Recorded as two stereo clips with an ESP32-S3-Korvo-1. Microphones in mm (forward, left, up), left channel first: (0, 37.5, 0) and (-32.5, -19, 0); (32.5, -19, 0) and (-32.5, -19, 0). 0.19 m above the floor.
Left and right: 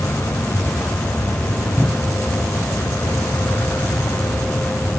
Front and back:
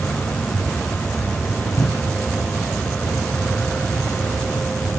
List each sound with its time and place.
0.0 s an aircraft: 65° left
1.8 s a cupboard door: 30° right